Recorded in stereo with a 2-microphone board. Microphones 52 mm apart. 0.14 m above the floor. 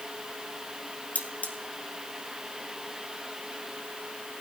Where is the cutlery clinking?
30° left (ahead or behind), 1.6 m.